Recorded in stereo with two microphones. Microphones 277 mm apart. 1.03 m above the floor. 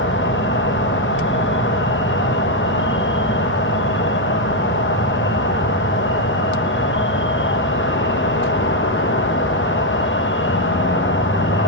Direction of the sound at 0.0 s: 45° left (ahead or behind).